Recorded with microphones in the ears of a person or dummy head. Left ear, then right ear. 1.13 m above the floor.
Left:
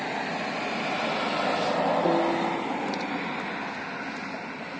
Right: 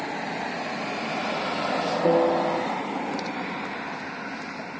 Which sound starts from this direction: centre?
A piano, at 2.0 s.